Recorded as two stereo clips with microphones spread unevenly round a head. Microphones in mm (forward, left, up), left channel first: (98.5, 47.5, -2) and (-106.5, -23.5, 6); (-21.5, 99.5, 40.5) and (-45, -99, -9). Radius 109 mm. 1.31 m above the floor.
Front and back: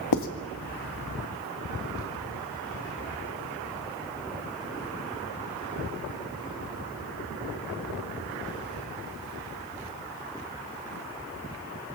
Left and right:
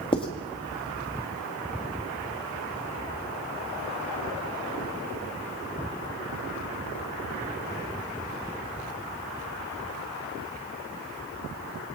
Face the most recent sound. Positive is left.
turn(degrees=15)